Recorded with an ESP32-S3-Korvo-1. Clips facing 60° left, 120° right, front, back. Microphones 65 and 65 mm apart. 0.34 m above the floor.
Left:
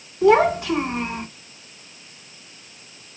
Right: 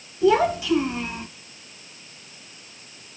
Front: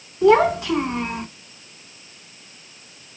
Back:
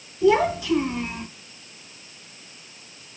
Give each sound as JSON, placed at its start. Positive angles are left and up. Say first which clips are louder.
{"t": 0.2, "sound": "a child speaking", "louder": "left 3 dB, front 4 dB", "azimuth_deg": 30, "distance_m": 2.5}